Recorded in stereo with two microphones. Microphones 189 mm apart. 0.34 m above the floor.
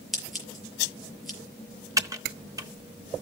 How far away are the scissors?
About 6 m.